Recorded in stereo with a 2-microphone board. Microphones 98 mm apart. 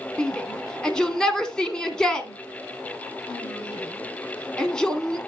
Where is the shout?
10° left (ahead or behind), 1.7 m.